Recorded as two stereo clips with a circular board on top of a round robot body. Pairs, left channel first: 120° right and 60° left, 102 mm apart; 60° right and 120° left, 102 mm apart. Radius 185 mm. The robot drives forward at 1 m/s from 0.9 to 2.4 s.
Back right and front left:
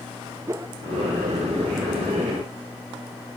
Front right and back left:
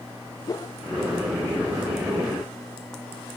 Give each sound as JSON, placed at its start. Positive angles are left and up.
{"t": 0.5, "sound": "a whoosh", "azimuth_deg": -5, "distance_m": 0.6}